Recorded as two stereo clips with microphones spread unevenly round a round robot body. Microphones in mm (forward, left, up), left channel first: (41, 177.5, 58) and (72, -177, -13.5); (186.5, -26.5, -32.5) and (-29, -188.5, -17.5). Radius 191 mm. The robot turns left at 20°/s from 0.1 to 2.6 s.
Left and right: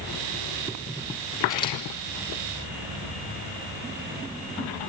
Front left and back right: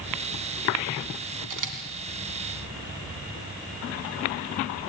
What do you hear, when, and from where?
1.5 s a camera shutter: straight behind, 2.5 m; by 1.8 s 175° left, 2.5 m